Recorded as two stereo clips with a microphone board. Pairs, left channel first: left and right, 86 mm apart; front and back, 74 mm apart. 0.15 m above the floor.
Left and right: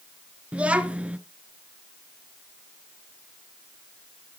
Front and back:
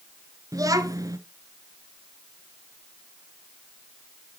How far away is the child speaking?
About 1.1 m.